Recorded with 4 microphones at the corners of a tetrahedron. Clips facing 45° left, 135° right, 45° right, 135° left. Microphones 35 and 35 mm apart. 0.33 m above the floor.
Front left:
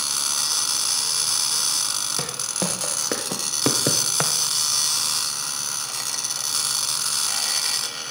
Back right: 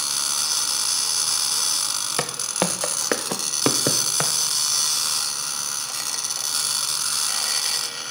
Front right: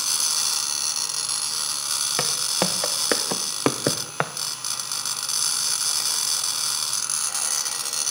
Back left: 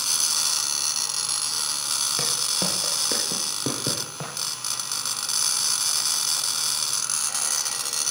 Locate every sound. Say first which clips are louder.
2.2 s footsteps: back right 3 dB, front right 2 dB; 95° right, 1.6 m; by 4.3 s 35° right, 1.1 m